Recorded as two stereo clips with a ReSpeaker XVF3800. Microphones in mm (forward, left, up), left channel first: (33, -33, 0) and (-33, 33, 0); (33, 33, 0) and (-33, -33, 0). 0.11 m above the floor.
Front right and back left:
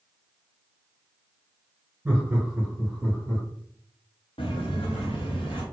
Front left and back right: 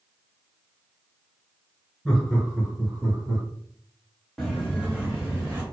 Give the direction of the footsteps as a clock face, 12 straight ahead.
1 o'clock.